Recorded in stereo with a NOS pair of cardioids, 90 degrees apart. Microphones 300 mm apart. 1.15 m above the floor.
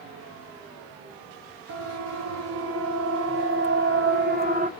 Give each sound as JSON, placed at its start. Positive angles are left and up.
{"t": 1.7, "sound": "a siren", "azimuth_deg": -70, "distance_m": 4.0}